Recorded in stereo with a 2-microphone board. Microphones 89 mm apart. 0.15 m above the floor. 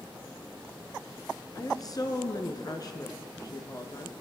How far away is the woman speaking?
About 2.5 m.